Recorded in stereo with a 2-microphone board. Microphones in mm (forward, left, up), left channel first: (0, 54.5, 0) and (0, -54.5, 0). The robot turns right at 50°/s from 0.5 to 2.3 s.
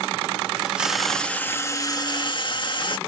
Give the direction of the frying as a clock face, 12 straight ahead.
12 o'clock.